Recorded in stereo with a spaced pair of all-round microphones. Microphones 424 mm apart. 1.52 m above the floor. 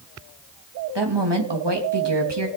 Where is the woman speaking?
75° right (ahead or behind), 2.5 m.